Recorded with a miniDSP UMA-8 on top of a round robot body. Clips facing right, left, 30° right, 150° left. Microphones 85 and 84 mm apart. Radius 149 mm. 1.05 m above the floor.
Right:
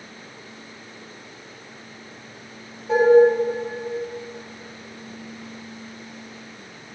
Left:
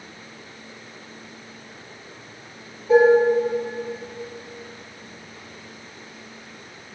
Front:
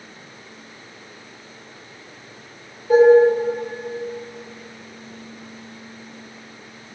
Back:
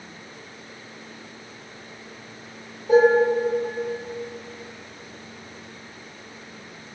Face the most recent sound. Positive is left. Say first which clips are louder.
# left 1 dB, front 5 dB
turn(degrees=-175)